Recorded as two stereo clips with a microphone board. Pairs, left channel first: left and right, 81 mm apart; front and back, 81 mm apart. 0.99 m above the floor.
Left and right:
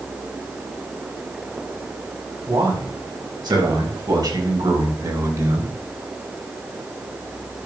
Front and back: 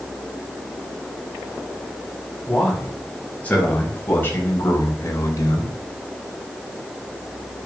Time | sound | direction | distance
2.5 | a man speaking | 75° right | 6.5 m